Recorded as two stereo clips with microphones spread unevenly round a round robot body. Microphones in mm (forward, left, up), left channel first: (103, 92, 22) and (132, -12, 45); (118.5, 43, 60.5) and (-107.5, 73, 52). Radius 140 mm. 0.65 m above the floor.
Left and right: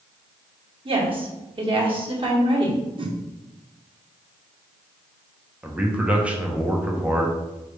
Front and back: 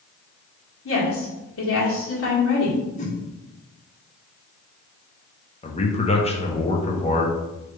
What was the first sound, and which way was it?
A woman speaking, 35° right.